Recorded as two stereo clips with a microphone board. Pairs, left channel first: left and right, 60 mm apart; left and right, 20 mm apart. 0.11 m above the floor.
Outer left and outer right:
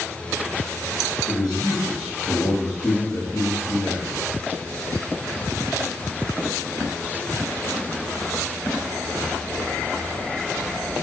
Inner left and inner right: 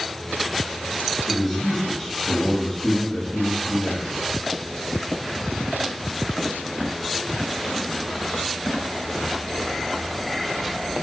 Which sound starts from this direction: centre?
A man speaking, at 1.3 s.